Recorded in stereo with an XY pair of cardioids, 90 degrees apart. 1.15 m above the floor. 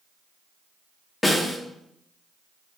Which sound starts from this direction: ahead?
A snare drum, at 1.2 s.